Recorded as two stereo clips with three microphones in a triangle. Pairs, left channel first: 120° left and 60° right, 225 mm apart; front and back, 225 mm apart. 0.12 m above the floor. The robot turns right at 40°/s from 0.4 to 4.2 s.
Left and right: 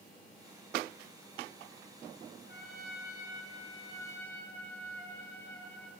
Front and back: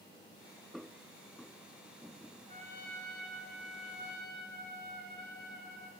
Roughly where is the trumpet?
Behind left.